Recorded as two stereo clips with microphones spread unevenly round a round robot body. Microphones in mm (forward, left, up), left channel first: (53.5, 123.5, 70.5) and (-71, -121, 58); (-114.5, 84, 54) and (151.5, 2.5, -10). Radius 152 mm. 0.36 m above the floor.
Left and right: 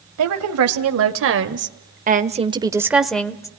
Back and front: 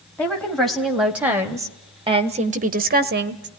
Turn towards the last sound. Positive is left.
turn(degrees=-15)